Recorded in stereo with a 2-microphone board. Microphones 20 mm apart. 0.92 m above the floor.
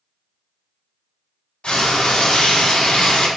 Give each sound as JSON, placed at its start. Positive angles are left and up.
{"t": 1.6, "sound": "frying", "side_deg": 75, "distance_m": 1.8}